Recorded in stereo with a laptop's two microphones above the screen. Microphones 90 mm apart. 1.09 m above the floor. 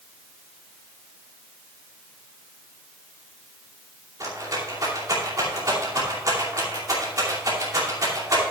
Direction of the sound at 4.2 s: 40° right (ahead or behind).